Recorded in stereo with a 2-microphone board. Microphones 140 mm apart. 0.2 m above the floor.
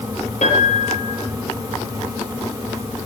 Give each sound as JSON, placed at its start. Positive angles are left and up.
{"t": 0.4, "sound": "a piano", "side_deg": 60, "distance_m": 5.5}